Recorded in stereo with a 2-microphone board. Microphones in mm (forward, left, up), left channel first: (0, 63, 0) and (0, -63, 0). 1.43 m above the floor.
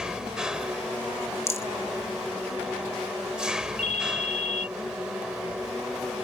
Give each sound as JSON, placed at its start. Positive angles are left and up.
{"t": 0.0, "sound": "an engine running", "side_deg": -5}
{"t": 1.5, "sound": "a rattle", "side_deg": 20}
{"t": 3.8, "sound": "a ringtone", "side_deg": 65}